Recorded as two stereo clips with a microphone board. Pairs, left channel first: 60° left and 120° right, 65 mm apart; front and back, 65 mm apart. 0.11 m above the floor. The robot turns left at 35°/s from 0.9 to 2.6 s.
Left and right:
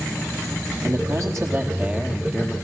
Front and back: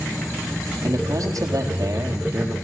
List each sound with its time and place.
0.8 s a man speaking: 150° right, 3.5 m; by 2.5 s 155° left, 3.5 m